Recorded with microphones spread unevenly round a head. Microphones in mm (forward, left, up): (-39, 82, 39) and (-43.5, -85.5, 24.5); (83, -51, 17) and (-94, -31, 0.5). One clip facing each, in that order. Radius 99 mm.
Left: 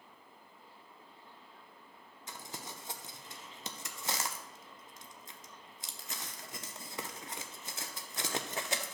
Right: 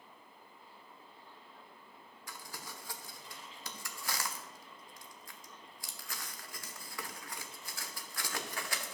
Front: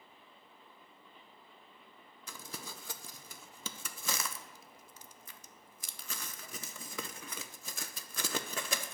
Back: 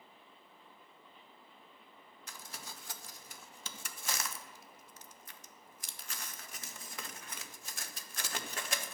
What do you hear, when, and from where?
2.3 s crumpling: 15° left, 0.6 m